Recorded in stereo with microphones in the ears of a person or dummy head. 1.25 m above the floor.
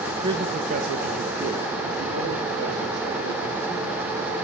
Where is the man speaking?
25° right (ahead or behind), 0.6 m; by 4.5 s 70° right (ahead or behind), 3.5 m.